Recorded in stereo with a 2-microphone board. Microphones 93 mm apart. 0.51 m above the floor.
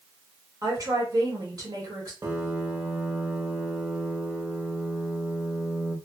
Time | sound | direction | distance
0.6 | a woman speaking | 40° right (ahead or behind) | 1.4 m
2.2 | a piano | 30° right (ahead or behind) | 0.7 m